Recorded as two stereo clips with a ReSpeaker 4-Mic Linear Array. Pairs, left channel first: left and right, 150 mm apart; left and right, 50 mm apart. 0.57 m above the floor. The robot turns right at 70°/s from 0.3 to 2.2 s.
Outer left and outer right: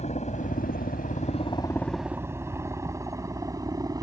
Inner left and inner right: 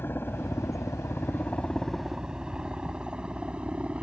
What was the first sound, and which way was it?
A helicopter, 50° left (ahead or behind).